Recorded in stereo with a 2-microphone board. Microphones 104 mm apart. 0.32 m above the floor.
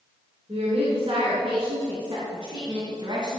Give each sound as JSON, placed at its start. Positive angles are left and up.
{"t": 0.5, "sound": "a woman speaking", "side_deg": -75, "distance_m": 3.5}